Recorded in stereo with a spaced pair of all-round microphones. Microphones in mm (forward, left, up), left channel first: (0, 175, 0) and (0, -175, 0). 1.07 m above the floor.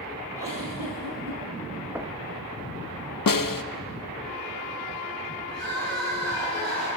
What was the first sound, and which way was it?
A giggle, 65° right (ahead or behind).